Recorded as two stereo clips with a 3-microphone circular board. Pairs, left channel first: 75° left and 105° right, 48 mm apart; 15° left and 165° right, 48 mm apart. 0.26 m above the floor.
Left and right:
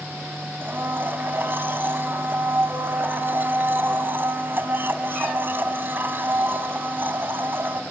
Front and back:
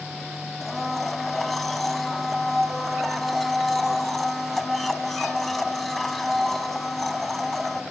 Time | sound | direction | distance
0.6 | a blender | 75° right | 1.2 m